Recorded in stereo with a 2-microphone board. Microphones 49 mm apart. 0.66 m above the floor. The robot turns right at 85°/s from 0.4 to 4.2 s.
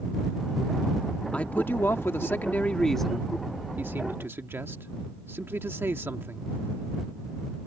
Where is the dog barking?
No dog barking in this recording.